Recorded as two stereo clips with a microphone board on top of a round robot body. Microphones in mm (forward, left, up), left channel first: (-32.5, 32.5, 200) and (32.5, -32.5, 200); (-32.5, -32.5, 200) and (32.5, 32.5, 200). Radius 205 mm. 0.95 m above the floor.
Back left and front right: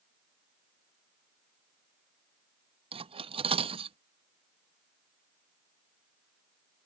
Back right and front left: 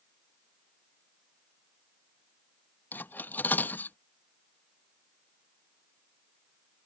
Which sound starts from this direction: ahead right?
Cutlery clinking, at 2.9 s.